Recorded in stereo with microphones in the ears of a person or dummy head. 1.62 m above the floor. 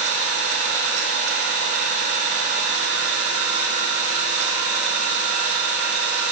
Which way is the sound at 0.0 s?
75° right (ahead or behind).